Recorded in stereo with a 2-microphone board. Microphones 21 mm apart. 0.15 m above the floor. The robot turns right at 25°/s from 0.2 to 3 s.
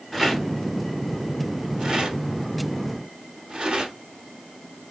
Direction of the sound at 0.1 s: 10° right (ahead or behind).